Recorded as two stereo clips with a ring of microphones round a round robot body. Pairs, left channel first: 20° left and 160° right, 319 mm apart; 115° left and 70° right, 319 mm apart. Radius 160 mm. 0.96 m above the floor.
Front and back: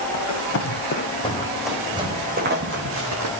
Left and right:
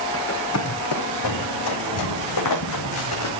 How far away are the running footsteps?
About 3 m.